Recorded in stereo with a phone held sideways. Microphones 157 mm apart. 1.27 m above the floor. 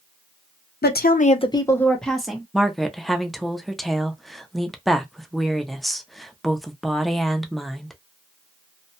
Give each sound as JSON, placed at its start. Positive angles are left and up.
{"t": 0.8, "sound": "a woman speaking", "side_deg": 85, "distance_m": 0.5}
{"t": 2.5, "sound": "a woman speaking", "side_deg": 0, "distance_m": 0.5}